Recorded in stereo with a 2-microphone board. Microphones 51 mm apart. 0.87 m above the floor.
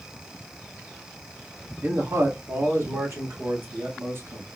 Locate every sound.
1.8 s a man speaking: 60° right (ahead or behind), 1.6 m; by 4.5 s 55° right (ahead or behind), 2.5 m